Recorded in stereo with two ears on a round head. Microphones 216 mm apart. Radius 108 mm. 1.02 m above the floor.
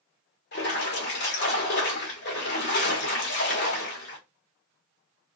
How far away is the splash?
About 1.1 m.